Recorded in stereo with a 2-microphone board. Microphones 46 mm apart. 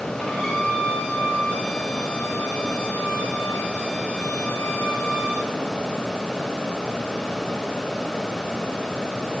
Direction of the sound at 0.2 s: 10° left (ahead or behind).